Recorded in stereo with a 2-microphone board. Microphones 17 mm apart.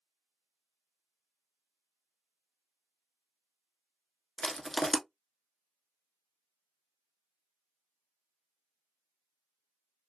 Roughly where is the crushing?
Centre.